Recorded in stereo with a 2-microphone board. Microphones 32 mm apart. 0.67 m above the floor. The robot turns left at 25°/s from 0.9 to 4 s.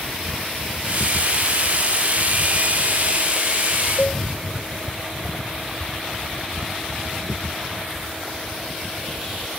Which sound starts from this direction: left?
A cowbell, at 4.0 s.